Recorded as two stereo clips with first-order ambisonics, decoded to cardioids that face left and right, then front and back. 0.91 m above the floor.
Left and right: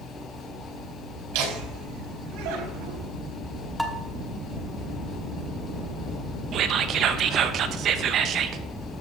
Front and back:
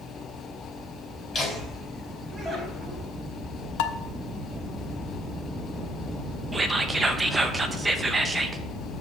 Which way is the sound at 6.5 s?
110° right.